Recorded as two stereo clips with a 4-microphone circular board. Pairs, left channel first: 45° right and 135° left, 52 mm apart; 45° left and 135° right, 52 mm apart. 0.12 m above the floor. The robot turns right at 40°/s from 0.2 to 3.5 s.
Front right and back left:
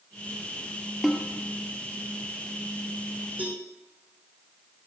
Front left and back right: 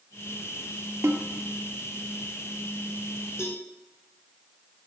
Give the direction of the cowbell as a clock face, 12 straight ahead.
10 o'clock.